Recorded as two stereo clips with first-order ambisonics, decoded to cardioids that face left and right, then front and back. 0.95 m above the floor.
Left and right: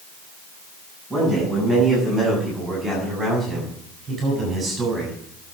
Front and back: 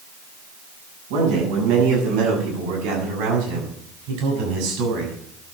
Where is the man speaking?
Straight behind, 8.5 m; by 5.2 s 155° right, 7.5 m.